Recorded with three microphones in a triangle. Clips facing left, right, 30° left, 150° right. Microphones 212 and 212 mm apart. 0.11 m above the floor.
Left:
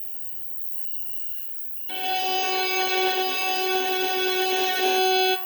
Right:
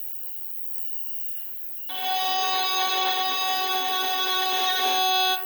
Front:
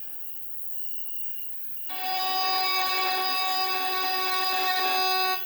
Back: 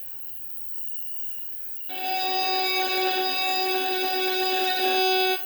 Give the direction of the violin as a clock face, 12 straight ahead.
7 o'clock.